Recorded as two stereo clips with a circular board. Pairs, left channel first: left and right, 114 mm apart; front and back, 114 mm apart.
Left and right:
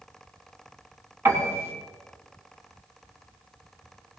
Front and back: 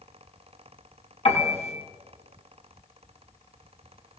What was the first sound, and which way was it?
A piano, 25° right.